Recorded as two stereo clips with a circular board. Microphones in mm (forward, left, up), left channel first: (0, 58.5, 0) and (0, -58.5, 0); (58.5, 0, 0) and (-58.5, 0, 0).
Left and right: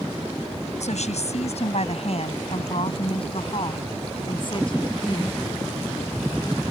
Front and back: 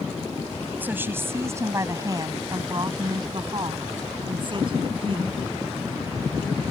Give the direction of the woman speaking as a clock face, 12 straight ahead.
8 o'clock.